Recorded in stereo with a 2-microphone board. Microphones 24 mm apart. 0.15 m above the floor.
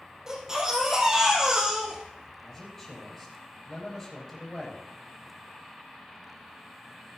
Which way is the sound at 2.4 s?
15° left (ahead or behind).